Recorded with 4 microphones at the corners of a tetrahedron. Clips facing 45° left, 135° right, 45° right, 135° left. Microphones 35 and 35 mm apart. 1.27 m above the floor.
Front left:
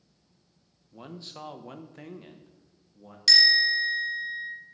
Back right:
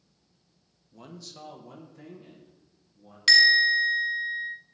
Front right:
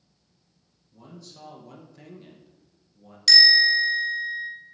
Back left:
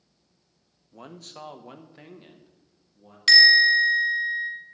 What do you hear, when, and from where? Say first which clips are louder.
0.9 s a man speaking: front left 3 dB, back left 4 dB; 115° left, 0.7 m; by 3.2 s 45° left, 1.3 m
3.3 s a bell: back right 3 dB, back left 2 dB; straight behind, 1.2 m